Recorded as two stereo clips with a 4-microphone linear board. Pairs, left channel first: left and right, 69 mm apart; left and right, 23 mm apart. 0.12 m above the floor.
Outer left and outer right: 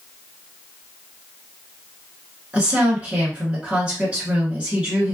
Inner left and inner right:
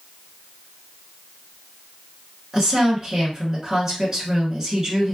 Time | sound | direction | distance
2.5 | a woman speaking | 20° right (ahead or behind) | 1.4 m